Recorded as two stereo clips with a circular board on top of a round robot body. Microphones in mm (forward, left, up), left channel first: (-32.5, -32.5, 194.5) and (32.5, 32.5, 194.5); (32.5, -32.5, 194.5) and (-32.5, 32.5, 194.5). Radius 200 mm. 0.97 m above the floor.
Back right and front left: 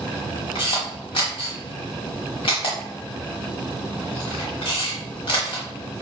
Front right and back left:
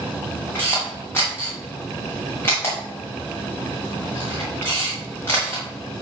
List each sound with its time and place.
0.6 s a camera shutter: 110° right, 1.0 m